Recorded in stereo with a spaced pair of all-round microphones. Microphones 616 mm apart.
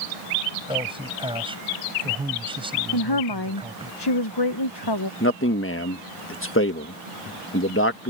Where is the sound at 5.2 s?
20° left (ahead or behind).